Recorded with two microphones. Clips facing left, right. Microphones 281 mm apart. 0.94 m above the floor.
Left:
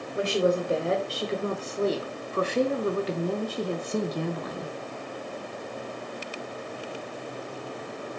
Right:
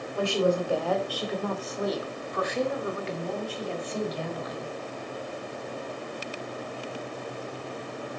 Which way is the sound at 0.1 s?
20° left (ahead or behind).